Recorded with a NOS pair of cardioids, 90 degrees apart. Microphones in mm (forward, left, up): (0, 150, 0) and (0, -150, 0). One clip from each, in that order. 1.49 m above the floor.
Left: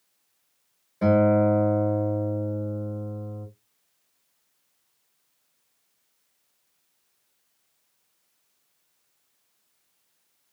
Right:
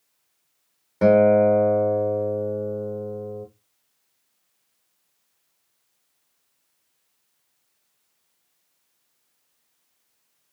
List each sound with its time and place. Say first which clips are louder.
1.0 s a guitar: right 5 dB; 55° right, 1.2 m